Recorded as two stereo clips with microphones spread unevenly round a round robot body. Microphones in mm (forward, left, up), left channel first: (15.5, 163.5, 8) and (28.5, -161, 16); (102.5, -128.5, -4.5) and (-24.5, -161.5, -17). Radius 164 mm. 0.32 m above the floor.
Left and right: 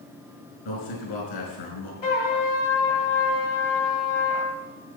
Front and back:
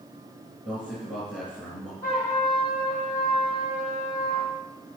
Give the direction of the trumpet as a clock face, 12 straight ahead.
9 o'clock.